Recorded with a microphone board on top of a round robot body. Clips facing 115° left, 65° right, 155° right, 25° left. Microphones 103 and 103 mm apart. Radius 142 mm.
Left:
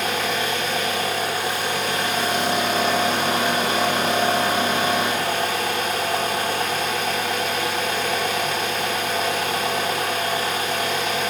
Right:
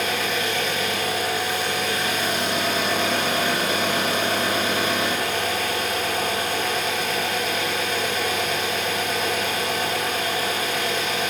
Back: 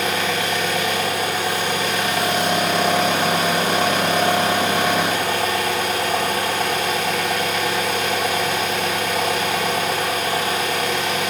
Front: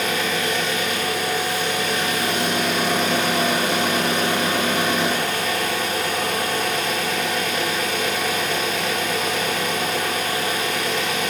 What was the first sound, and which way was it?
An engine running, 165° left.